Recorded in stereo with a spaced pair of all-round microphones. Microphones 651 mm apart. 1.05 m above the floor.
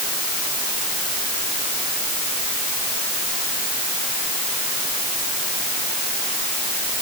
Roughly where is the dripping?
No dripping in this recording.